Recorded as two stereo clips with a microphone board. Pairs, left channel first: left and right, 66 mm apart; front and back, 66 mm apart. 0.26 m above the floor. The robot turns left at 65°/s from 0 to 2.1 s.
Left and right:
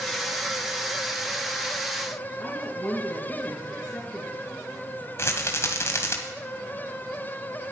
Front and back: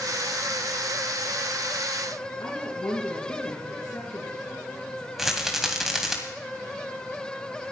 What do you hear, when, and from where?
2.4 s a woman speaking: 10° left, 3.5 m
5.2 s a rattle: 95° left, 2 m